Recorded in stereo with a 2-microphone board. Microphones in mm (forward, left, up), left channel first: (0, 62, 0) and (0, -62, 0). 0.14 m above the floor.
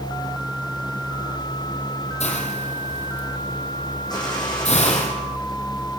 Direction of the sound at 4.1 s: 35° left (ahead or behind).